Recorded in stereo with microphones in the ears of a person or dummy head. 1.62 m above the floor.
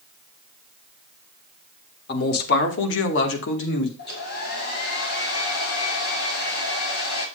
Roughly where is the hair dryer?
Left.